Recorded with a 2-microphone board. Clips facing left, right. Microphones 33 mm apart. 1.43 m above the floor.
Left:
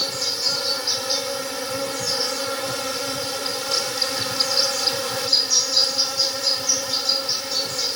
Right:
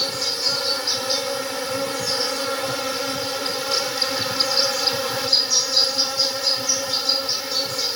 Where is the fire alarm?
No fire alarm in this recording.